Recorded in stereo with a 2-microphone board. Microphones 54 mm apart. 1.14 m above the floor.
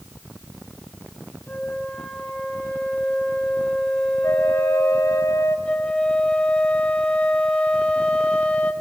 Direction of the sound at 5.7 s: 20° left (ahead or behind).